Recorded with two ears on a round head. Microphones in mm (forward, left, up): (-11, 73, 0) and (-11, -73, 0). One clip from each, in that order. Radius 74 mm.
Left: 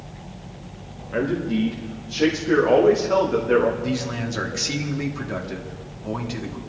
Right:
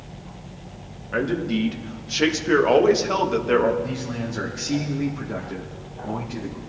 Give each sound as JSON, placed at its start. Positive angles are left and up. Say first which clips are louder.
{"t": 1.1, "sound": "a man speaking", "louder": "even", "side_deg": -25, "distance_m": 1.9}
{"t": 3.8, "sound": "a man speaking", "louder": "left 3 dB", "side_deg": 50, "distance_m": 2.5}